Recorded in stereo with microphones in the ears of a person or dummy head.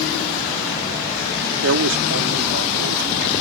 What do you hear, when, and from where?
1.6 s a man speaking: 80° right